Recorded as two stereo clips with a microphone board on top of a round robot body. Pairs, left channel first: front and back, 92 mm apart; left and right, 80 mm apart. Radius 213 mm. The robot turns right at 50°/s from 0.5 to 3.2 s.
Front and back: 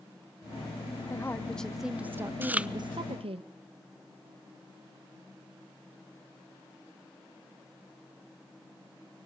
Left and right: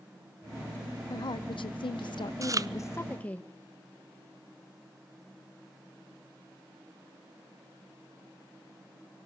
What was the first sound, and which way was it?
A woman speaking, 60° left.